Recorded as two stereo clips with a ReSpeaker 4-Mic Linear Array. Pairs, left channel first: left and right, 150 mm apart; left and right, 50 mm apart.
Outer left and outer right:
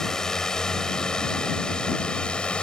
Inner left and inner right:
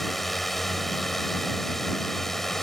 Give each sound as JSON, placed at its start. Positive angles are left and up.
{"t": 0.0, "sound": "a drone", "side_deg": 5}